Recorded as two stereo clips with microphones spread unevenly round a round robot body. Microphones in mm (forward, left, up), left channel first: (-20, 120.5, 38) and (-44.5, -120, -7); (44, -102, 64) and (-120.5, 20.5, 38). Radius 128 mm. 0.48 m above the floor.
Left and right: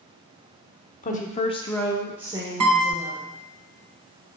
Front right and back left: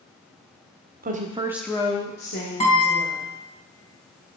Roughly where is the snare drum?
No snare drum in this recording.